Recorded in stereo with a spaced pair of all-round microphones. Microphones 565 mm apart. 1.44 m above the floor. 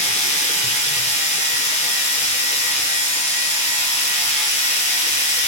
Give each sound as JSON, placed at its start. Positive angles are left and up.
{"t": 0.0, "sound": "a machine running", "side_deg": -35, "distance_m": 4.5}